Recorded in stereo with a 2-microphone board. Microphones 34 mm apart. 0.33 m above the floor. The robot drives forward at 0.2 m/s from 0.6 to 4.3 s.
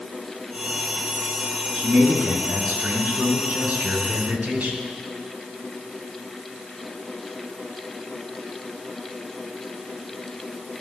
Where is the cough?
No cough in this recording.